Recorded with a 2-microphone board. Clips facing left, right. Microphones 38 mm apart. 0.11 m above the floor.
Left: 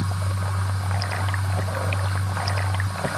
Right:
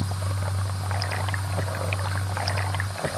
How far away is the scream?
I don't hear a scream.